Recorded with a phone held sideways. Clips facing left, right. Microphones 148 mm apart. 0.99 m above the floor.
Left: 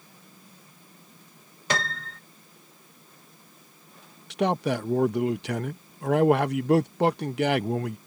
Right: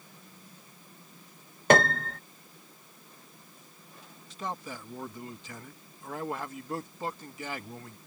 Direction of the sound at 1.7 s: 50° right (ahead or behind).